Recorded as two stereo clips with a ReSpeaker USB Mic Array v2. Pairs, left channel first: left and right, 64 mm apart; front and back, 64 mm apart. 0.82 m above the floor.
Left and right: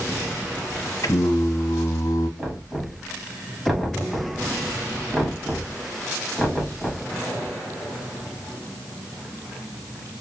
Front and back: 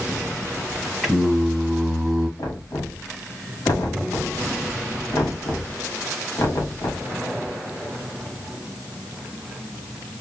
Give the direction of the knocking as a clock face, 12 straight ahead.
12 o'clock.